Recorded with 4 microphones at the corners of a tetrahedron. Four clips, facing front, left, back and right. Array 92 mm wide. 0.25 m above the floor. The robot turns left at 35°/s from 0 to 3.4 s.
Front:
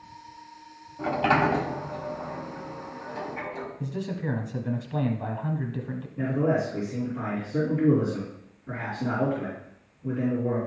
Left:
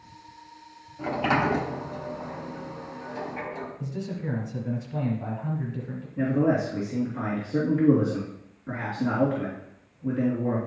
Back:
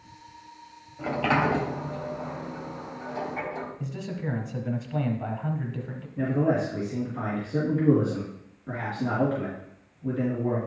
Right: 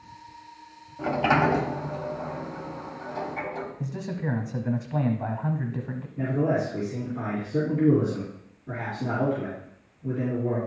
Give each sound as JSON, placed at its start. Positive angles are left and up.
{"t": 1.0, "sound": "a sliding door", "azimuth_deg": -60, "distance_m": 1.3}
{"t": 3.8, "sound": "a man speaking", "azimuth_deg": -75, "distance_m": 1.1}
{"t": 6.2, "sound": "a man speaking", "azimuth_deg": 120, "distance_m": 3.5}